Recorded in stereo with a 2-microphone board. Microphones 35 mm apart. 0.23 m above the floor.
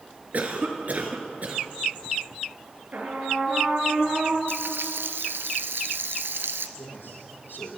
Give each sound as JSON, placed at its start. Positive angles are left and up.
{"t": 0.3, "sound": "a cough", "side_deg": -45, "distance_m": 3.0}
{"t": 2.9, "sound": "a trumpet", "side_deg": -50, "distance_m": 4.5}
{"t": 4.5, "sound": "frying", "side_deg": -80, "distance_m": 1.0}
{"t": 6.8, "sound": "a man speaking", "side_deg": 80, "distance_m": 7.0}